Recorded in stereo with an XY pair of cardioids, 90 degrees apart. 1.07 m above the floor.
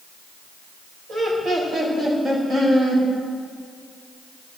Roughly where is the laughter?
Ahead right.